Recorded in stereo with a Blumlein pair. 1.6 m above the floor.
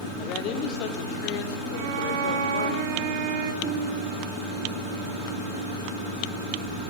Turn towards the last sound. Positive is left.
turn(degrees=-40)